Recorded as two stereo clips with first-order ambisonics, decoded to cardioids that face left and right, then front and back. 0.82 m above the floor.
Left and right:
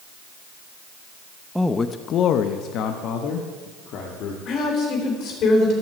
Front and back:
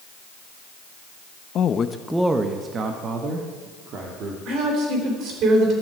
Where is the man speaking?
5° right, 0.5 m; by 4.3 s 130° left, 1.9 m.